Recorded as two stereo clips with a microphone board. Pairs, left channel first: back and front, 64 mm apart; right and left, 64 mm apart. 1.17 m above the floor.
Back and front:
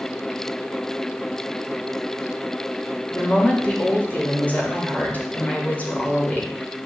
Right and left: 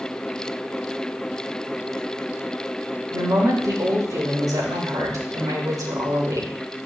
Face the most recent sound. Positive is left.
turn(degrees=115)